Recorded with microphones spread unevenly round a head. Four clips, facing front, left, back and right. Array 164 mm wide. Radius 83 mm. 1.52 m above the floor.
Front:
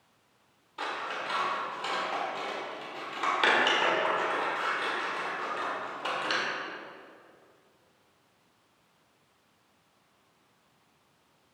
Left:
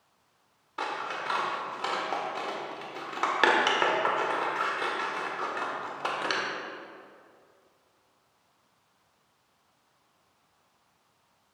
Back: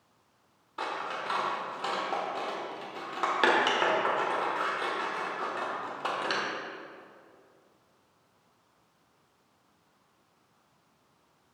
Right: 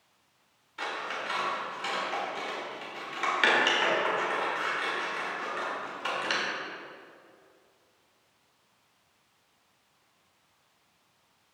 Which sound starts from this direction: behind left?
Scissors, at 0.8 s.